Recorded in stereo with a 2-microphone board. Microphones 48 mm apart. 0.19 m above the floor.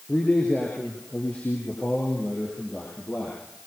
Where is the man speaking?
30° left (ahead or behind), 5.5 m; by 3.4 s 35° left (ahead or behind), 9.5 m.